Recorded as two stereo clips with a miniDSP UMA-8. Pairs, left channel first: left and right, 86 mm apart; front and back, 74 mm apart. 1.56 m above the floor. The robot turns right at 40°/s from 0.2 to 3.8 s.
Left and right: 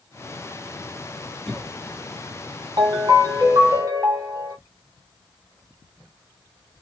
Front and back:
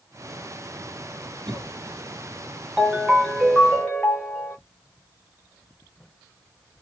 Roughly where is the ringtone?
Right.